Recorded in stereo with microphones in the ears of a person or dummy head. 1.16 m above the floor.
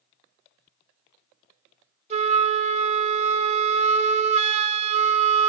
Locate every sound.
2.1 s a flute: 40° right (ahead or behind), 0.8 m